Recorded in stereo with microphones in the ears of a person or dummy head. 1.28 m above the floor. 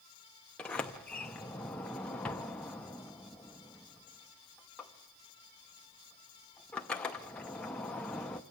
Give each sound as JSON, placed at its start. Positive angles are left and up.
{"t": 0.6, "sound": "a sliding door", "side_deg": 10, "distance_m": 0.7}